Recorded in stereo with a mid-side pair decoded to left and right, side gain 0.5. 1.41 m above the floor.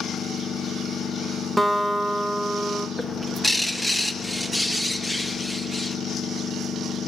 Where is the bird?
15° left, 1.0 m.